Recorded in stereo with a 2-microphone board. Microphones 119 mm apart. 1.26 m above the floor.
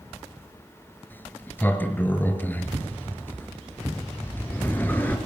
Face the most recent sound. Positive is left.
turn(degrees=15)  # may be behind; listen again after turning